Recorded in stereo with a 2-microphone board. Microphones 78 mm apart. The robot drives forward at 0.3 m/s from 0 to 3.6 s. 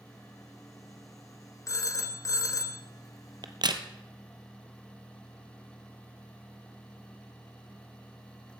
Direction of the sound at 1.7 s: 40° left (ahead or behind).